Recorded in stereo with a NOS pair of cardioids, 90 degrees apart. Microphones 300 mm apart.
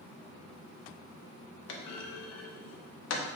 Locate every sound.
1.7 s a clunk: 60° left, 0.6 m